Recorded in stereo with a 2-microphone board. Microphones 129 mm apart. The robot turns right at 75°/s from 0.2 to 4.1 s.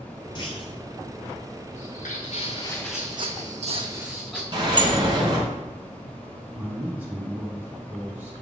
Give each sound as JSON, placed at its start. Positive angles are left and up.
{"t": 0.3, "sound": "a clunk", "side_deg": 35, "distance_m": 0.8}
{"t": 1.7, "sound": "footsteps", "side_deg": 65, "distance_m": 1.4}
{"t": 4.5, "sound": "a sliding door", "side_deg": -40, "distance_m": 1.5}
{"t": 6.5, "sound": "a man speaking", "side_deg": -10, "distance_m": 1.9}